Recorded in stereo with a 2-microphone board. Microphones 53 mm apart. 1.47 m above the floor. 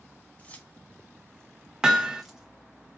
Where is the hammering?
15° right (ahead or behind), 0.8 m.